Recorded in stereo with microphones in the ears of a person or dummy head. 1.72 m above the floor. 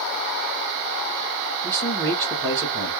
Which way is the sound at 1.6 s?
15° left (ahead or behind).